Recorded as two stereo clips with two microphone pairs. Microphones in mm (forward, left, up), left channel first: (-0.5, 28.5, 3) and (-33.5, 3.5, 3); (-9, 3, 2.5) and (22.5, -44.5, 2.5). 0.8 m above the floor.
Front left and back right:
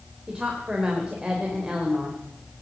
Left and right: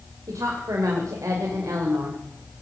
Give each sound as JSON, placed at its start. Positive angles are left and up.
{"t": 0.3, "sound": "a woman speaking", "azimuth_deg": -75, "distance_m": 3.0}